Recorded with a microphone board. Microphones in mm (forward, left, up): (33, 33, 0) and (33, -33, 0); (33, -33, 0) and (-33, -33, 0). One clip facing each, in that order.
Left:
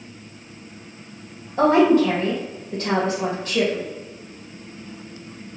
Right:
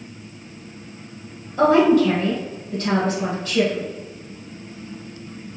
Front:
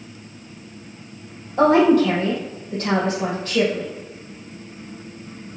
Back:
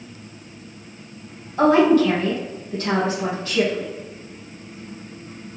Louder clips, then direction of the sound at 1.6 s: Right 1 dB, even; 40° left.